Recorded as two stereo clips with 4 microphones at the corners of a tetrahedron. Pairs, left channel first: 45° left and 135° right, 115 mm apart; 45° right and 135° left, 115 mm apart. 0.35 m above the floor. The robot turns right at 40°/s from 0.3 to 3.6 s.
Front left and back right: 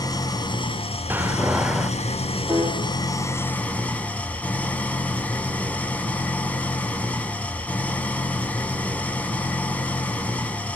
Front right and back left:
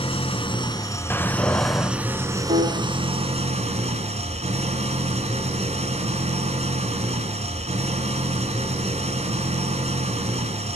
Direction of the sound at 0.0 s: 10° right.